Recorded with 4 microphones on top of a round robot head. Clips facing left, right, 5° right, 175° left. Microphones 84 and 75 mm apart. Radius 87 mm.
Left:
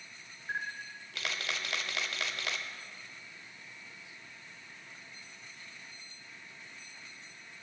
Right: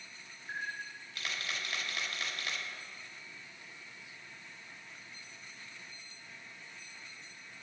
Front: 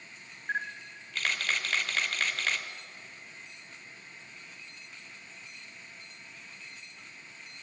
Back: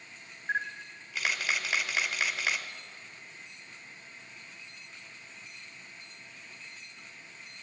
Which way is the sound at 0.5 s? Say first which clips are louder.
Left 2 dB, back 1 dB; 95° left.